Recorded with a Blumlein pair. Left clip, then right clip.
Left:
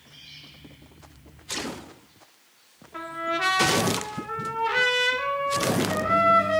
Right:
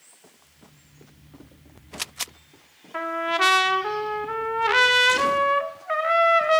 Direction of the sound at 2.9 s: 25° right.